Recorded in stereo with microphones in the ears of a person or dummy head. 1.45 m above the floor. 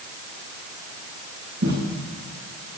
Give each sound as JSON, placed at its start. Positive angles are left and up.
{"t": 1.6, "sound": "footsteps", "side_deg": -60, "distance_m": 7.5}